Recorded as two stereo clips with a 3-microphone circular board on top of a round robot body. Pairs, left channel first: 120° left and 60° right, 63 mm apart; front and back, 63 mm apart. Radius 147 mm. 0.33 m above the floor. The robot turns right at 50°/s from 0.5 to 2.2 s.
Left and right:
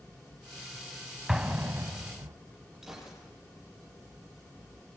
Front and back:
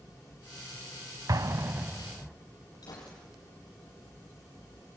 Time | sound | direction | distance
1.3 | an explosion | 145° right | 0.9 m
2.8 | a gunshot | 25° left | 7.5 m